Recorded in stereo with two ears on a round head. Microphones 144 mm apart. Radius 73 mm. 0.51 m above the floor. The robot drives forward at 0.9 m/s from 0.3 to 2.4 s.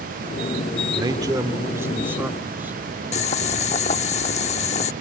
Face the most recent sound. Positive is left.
turn(degrees=45)  # may be behind; listen again after turning